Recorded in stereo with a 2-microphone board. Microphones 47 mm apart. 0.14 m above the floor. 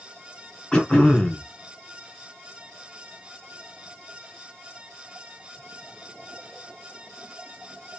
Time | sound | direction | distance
0.7 | throat clearing | 15° left (ahead or behind) | 1.2 m